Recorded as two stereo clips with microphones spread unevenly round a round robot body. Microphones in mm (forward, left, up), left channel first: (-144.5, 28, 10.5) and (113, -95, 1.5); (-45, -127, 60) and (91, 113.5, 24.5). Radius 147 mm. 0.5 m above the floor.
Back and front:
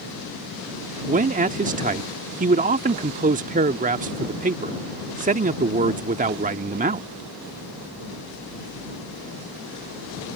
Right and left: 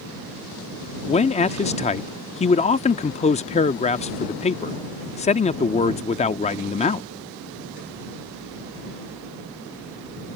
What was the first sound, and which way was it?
A man speaking, 60° right.